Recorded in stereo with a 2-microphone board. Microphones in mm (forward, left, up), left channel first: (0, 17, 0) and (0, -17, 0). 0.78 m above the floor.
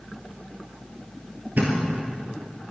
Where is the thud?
60° right (ahead or behind), 3.5 m.